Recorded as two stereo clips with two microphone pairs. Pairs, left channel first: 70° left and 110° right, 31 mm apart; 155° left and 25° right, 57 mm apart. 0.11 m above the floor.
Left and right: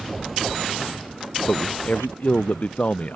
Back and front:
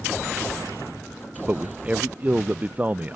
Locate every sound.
1.5 s a man speaking: 40° left